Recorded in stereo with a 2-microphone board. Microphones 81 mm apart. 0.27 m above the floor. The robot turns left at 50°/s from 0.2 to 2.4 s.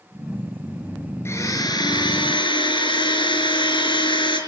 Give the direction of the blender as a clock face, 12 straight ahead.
7 o'clock.